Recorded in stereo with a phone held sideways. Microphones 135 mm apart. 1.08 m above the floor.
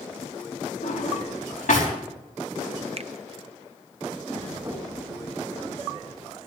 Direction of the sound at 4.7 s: 25° right (ahead or behind).